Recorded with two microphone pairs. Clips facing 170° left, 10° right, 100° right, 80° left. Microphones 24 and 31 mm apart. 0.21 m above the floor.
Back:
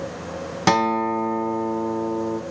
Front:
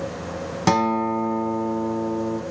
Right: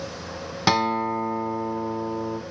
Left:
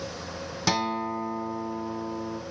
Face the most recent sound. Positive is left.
turn(degrees=-135)